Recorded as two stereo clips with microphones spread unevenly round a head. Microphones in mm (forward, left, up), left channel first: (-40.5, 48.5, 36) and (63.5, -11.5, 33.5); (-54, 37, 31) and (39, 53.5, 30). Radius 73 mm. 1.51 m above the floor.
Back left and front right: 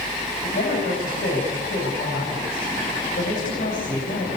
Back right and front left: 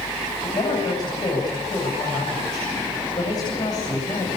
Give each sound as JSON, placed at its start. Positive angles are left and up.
{"t": 0.4, "sound": "a man speaking", "azimuth_deg": 145, "distance_m": 8.5}